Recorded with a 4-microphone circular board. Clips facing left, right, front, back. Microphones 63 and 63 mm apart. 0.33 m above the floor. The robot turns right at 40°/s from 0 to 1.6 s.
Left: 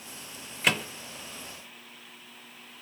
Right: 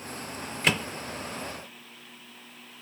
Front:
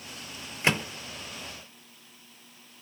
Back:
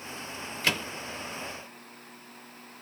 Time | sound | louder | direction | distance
0.6 | a microwave | even, front 3 dB | straight ahead | 0.7 m